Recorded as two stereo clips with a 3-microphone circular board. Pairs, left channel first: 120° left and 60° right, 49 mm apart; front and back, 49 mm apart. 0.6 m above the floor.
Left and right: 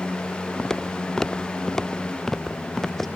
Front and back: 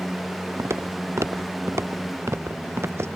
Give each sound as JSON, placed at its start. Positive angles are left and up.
{"t": 0.6, "sound": "footsteps", "azimuth_deg": -160}